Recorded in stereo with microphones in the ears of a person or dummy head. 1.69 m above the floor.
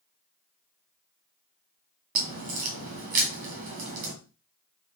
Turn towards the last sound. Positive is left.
turn(degrees=-50)  # may be behind; listen again after turning